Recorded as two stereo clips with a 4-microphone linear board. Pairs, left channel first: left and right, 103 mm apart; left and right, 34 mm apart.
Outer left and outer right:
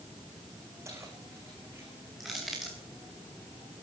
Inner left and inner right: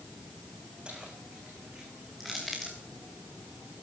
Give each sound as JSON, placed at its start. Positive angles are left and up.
{"t": 0.8, "sound": "keys jangling", "side_deg": -25, "distance_m": 8.0}
{"t": 2.2, "sound": "crushing", "side_deg": 0, "distance_m": 5.5}